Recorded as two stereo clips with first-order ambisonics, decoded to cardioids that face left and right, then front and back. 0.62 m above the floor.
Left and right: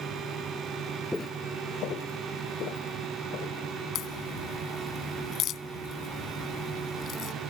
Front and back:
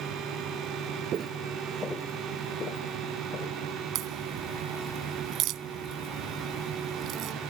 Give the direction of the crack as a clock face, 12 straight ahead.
7 o'clock.